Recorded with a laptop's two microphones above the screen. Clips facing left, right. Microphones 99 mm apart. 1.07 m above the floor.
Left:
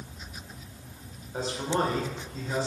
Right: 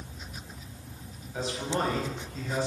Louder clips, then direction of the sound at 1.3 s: Left 2 dB; 40° left (ahead or behind).